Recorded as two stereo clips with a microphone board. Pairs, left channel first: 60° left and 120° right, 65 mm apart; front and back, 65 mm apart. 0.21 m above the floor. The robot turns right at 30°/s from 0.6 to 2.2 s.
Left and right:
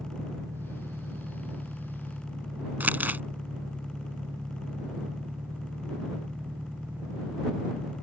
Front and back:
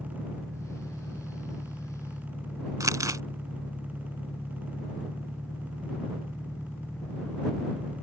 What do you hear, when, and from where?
0.0 s an engine running: 100° right; by 8.0 s 50° right
2.8 s crumpling: straight behind